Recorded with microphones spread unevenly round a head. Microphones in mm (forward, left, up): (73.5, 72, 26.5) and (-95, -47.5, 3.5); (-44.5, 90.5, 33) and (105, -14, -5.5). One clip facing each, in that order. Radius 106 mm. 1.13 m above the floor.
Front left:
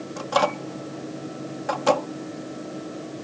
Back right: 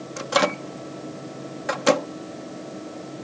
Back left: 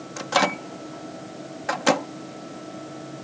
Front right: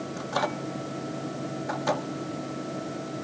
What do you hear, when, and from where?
0.2 s a microwave: 155° left